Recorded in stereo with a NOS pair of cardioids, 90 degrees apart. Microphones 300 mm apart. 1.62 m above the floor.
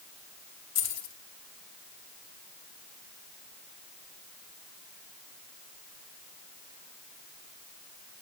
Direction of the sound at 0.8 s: 60° left.